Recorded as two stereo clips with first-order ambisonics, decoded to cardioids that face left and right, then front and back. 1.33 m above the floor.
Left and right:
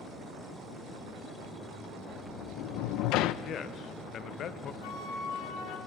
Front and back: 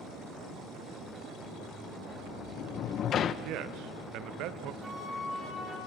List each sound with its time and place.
2.1 s a sliding door: 55° left, 0.7 m
3.4 s a man speaking: 145° left, 1.0 m
4.8 s a flute: 100° left, 4 m